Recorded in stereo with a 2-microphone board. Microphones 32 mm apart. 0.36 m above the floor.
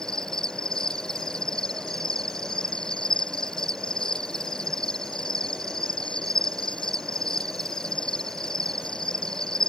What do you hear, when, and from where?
0.0 s an insect: 20° left (ahead or behind)